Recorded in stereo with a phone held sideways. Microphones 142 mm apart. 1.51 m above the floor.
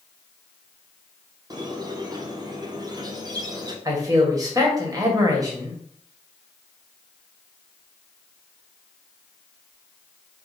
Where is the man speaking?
25° right (ahead or behind), 1.3 m.